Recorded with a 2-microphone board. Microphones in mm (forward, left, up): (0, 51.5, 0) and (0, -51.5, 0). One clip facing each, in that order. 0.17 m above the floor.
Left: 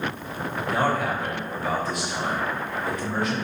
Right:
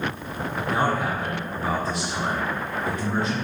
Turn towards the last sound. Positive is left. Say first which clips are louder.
# even
turn(degrees=-30)  # may be behind; listen again after turning